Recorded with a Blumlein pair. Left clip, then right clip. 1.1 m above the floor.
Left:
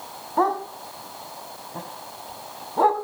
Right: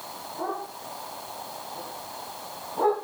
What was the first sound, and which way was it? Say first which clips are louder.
A dog barking: left 11 dB; 50° left.